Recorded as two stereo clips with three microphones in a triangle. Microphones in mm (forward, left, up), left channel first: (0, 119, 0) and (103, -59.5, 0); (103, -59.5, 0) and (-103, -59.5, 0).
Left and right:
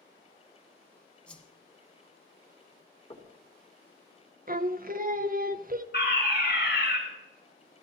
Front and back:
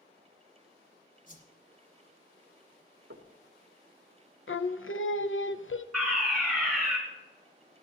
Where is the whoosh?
35° left, 1.7 m.